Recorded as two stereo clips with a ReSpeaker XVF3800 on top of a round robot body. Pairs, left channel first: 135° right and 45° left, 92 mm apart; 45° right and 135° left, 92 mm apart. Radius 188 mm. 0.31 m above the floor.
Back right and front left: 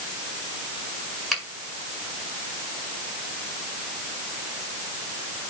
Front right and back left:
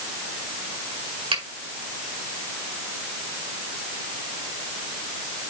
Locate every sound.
1.3 s a finger snap: 135° left, 4.5 m